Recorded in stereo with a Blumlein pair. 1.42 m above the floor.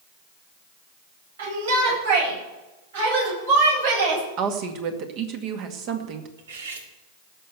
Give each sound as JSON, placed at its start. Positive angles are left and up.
{"t": 1.4, "sound": "a shout", "azimuth_deg": -60, "distance_m": 9.5}
{"t": 4.4, "sound": "a woman speaking", "azimuth_deg": -40, "distance_m": 2.0}
{"t": 6.4, "sound": "cutlery clinking", "azimuth_deg": -60, "distance_m": 2.0}